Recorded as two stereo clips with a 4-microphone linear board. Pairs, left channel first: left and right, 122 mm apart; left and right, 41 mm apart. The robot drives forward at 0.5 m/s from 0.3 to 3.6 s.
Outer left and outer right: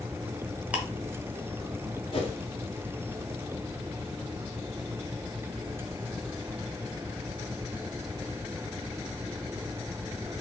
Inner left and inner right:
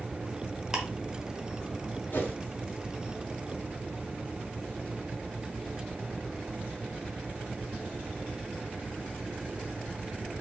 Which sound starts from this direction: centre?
Ticking, at 0.7 s.